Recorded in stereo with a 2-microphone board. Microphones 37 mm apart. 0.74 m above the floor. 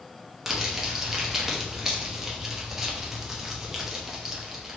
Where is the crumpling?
15° right (ahead or behind), 0.8 m.